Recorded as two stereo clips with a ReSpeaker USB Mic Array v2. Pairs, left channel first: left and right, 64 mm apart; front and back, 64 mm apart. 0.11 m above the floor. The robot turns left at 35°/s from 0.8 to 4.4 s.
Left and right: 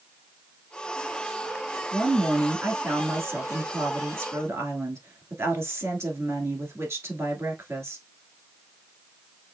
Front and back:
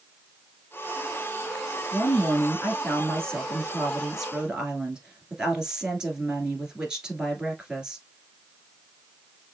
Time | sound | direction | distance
1.9 | a woman speaking | 20° right | 1.6 m